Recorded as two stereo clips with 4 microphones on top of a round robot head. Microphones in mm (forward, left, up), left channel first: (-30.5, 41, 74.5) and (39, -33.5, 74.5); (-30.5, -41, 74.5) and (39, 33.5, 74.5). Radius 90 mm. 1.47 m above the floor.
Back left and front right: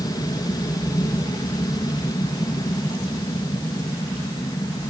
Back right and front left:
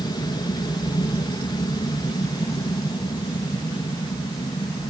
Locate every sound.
0.0 s an aircraft: 175° right